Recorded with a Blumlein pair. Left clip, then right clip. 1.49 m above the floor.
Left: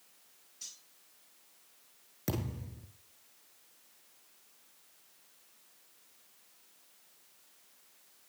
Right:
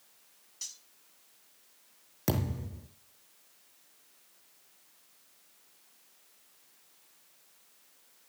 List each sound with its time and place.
0.6 s cutlery clinking: 60° right, 6 m
2.3 s a thud: 20° right, 5 m